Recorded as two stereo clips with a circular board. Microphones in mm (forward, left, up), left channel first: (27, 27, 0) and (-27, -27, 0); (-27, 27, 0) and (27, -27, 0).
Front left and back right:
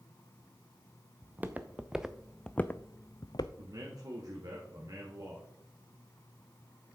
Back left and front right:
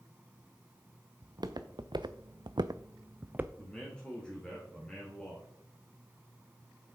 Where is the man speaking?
150° right, 1.9 m.